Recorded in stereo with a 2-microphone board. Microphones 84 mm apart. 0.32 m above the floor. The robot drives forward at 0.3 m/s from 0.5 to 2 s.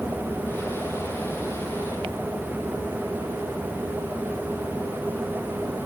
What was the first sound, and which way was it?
Only background noise.